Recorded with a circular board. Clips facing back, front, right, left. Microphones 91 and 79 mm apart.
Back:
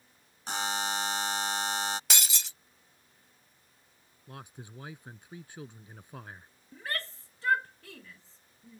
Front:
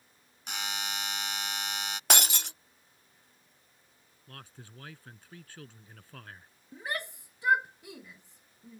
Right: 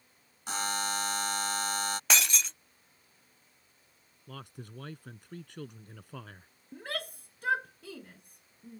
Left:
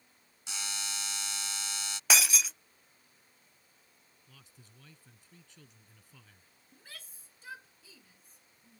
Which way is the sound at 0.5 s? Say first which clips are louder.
Back 6 dB, right 10 dB; 130° right.